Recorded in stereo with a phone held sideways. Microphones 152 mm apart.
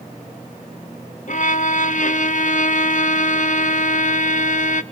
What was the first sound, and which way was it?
A violin, 60° left (ahead or behind).